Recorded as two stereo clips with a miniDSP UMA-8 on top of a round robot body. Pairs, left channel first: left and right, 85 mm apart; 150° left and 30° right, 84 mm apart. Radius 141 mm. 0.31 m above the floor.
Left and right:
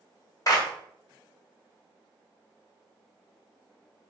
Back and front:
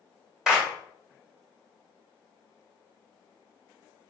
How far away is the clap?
About 1.5 m.